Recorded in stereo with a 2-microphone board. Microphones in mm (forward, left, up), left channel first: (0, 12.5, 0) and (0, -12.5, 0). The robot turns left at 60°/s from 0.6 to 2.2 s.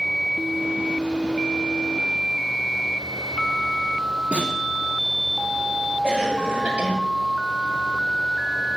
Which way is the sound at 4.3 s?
80° right.